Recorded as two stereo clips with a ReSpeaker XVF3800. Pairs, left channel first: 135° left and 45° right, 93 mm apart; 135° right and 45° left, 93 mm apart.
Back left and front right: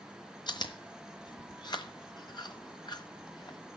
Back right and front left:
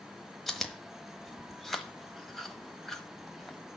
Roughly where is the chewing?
Behind left.